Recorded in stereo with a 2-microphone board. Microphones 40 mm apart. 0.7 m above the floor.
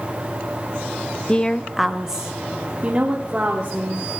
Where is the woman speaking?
25° left (ahead or behind), 0.6 m; by 4.0 s 40° right (ahead or behind), 2.0 m.